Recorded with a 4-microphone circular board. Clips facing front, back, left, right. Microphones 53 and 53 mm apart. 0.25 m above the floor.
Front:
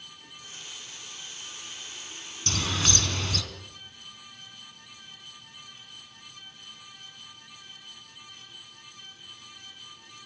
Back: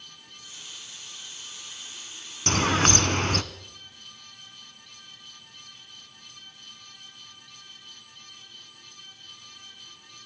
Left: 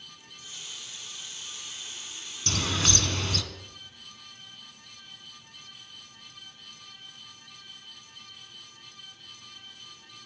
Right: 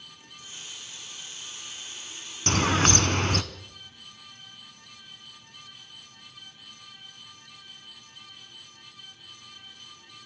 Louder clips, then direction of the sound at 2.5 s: Back 7 dB, right 6 dB; 135° right.